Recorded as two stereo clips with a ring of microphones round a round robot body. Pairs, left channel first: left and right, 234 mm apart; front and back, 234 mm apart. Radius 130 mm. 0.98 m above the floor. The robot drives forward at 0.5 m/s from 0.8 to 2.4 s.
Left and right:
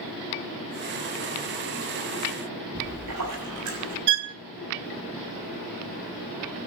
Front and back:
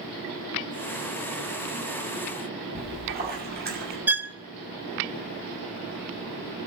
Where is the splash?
130° right, 6.5 m.